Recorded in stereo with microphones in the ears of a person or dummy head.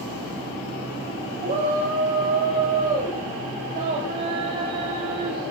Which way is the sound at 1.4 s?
30° right (ahead or behind).